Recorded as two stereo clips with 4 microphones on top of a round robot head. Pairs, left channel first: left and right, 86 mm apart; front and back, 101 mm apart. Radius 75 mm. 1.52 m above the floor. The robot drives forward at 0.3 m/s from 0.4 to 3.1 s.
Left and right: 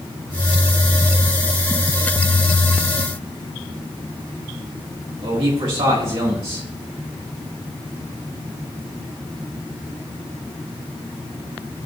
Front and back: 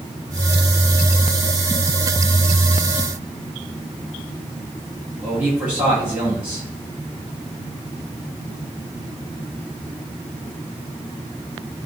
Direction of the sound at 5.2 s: 100° right.